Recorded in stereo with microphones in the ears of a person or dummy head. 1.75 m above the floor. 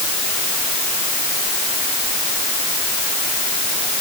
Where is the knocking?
No knocking in this recording.